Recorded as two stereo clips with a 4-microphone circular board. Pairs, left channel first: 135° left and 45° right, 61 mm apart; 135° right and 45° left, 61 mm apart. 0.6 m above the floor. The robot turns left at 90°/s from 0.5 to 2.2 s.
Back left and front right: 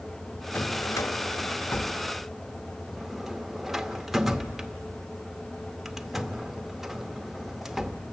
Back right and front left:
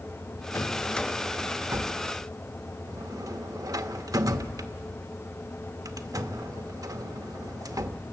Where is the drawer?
165° right, 0.8 m; by 8.0 s 45° left, 0.8 m.